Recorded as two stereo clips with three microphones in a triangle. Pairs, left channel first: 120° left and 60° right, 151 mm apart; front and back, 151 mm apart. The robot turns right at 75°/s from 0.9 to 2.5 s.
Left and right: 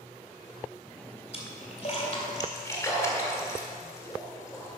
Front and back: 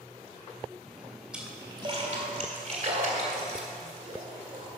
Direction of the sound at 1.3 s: 95° left.